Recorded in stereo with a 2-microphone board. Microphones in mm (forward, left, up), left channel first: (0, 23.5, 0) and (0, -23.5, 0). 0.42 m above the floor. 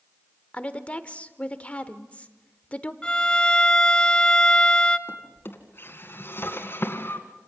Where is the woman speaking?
30° left (ahead or behind), 1.0 m.